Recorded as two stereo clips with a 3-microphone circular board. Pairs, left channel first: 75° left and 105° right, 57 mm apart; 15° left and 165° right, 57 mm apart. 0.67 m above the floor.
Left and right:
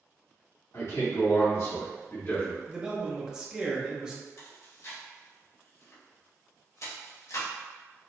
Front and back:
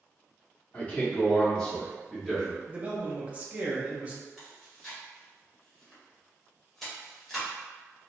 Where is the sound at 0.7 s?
70° left, 1.8 m; by 2.6 s 110° left, 1.7 m.